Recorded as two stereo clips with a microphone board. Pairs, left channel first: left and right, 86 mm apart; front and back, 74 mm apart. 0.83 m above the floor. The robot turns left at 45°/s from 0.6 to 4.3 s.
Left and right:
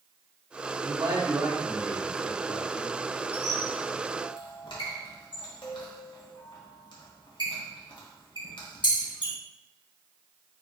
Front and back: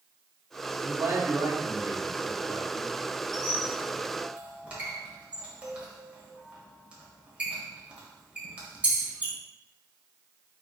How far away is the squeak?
About 1.5 m.